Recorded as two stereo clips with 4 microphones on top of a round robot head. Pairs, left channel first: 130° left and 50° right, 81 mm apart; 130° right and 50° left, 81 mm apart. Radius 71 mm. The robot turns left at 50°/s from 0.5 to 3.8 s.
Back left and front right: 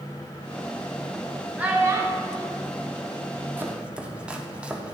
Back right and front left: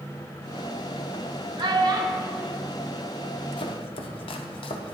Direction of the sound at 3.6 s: 120° right.